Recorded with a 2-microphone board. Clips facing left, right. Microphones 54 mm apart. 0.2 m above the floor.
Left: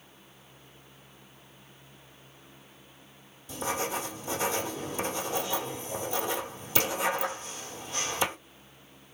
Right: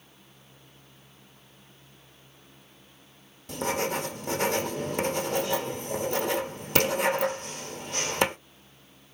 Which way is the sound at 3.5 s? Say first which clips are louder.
Right 3 dB; 65° right (ahead or behind).